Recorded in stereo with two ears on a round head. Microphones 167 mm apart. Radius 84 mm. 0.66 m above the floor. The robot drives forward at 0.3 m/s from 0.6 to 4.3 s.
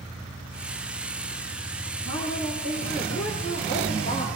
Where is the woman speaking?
25° left (ahead or behind), 6 m; by 4.3 s 30° left (ahead or behind), 5.5 m.